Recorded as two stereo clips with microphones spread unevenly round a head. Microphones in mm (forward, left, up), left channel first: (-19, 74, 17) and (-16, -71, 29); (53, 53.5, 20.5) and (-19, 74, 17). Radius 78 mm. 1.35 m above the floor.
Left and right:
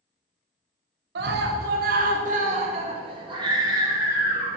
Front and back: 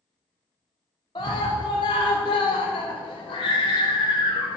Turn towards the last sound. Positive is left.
turn(degrees=-10)